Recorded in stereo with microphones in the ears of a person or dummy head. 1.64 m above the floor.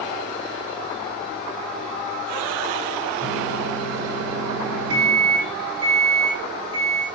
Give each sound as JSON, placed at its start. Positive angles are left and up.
{"t": 3.2, "sound": "a microwave", "side_deg": -80, "distance_m": 6.0}